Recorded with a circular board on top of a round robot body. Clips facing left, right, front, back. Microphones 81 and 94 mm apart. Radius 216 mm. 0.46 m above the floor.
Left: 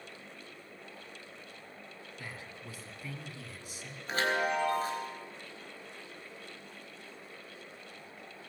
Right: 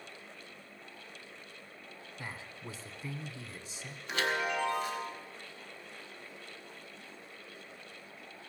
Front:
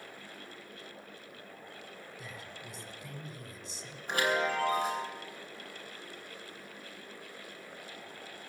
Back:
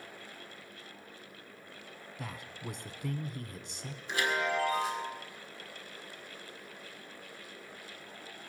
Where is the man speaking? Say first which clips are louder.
Right 2 dB, back 7 dB; 160° right, 1.9 m.